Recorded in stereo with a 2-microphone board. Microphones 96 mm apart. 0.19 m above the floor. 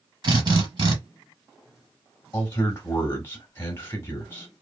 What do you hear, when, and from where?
0.2 s a drill: 50° right (ahead or behind), 1.4 m
2.3 s a man speaking: 25° left (ahead or behind), 1.0 m